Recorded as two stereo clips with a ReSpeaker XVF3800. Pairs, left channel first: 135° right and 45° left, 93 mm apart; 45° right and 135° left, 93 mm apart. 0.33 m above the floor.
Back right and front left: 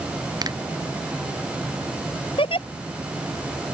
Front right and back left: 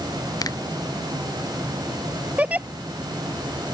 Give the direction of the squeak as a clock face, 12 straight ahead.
I don't hear a squeak.